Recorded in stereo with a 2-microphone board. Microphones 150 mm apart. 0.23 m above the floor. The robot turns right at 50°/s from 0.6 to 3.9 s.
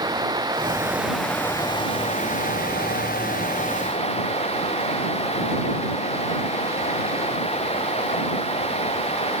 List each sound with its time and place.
0.0 s running water: 30° right; by 9.4 s 135° left